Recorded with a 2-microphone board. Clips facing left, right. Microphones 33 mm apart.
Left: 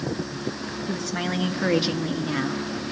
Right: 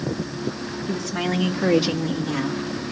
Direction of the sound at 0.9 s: Centre (ahead or behind).